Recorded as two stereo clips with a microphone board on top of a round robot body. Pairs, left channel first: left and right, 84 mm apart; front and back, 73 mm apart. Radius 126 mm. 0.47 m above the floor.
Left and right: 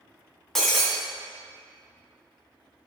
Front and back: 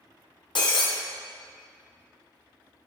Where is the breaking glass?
5° left, 2 m.